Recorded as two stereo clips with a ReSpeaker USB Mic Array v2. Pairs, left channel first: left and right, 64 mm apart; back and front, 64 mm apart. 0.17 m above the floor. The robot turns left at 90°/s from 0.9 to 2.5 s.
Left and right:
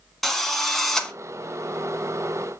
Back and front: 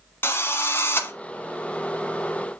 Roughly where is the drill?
Behind.